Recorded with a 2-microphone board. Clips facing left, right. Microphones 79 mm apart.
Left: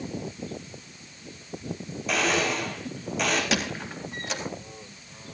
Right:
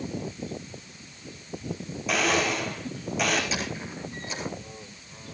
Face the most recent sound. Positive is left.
turn(degrees=70)  # may be behind; listen again after turning